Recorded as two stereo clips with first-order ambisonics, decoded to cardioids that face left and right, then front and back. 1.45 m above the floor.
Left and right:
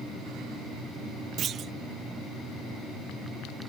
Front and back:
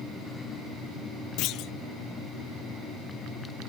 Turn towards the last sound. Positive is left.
turn(degrees=-35)